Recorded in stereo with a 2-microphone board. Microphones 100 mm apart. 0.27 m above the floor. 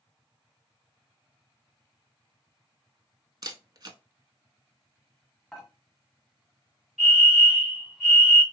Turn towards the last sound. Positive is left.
turn(degrees=-5)  # may be behind; listen again after turning